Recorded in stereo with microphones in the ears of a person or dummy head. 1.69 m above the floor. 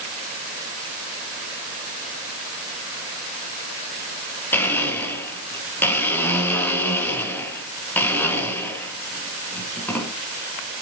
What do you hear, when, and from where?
4.5 s a blender: 10° left (ahead or behind), 5 m